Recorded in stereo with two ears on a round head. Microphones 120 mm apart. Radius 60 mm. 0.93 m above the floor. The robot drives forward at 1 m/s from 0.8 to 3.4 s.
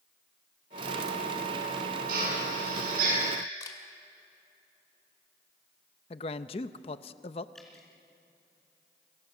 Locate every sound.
2.1 s a drill: 85° right, 9.5 m; by 3.2 s 75° right (ahead or behind), 10 m
3.6 s a camera shutter: 30° left (ahead or behind), 2.5 m
6.1 s a man speaking: 50° left (ahead or behind), 0.8 m
7.5 s dripping: 5° left (ahead or behind), 4 m